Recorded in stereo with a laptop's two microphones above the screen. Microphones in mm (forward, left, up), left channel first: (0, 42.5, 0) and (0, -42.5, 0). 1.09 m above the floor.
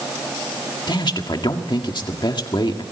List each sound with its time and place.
0.9 s a man speaking: 65° left (ahead or behind), 1.8 m